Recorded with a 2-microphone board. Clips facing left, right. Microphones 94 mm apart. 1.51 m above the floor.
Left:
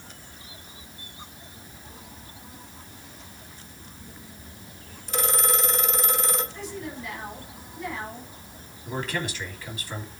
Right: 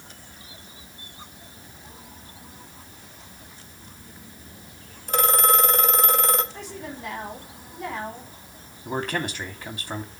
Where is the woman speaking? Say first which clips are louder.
Left 1 dB; 65° right (ahead or behind), 6 m.